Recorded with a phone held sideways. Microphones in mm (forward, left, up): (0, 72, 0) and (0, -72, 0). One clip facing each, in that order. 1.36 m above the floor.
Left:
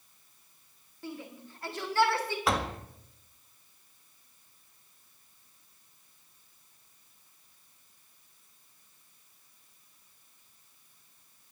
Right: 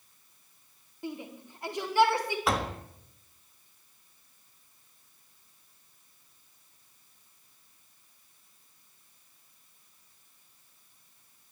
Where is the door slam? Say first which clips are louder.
Left 1 dB; centre (ahead or behind), 1.4 m.